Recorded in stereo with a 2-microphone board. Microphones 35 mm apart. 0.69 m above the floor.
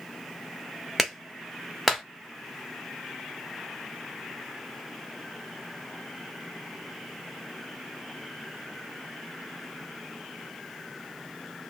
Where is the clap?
Centre (ahead or behind), 1.2 m.